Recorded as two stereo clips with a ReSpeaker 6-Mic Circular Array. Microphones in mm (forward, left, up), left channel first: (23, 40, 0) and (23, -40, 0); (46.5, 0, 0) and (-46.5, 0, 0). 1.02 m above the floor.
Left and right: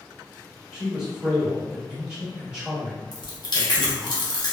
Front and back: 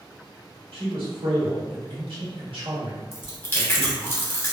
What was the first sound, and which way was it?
A man speaking, 170° right.